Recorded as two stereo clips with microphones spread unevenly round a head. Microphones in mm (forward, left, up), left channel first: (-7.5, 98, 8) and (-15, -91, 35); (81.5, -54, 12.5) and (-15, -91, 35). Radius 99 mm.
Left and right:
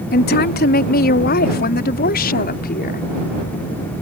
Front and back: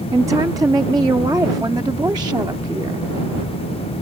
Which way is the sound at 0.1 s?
130° left.